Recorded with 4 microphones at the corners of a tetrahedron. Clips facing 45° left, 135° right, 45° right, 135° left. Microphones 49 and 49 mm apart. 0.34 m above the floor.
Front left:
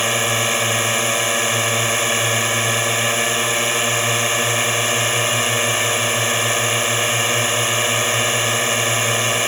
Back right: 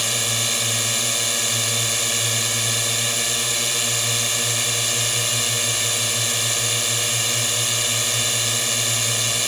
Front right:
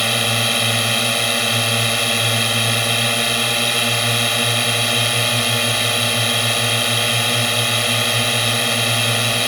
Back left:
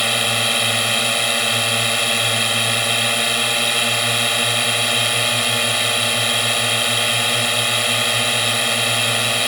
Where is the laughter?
No laughter in this recording.